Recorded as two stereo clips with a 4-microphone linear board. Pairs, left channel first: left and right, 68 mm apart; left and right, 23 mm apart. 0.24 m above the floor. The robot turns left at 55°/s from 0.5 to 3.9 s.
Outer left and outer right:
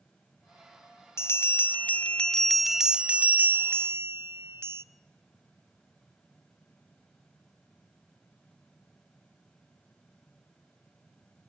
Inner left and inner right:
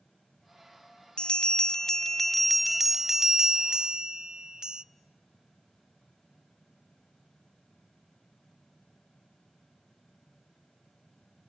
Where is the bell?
80° left, 0.5 m; by 4.8 s 70° right, 0.5 m.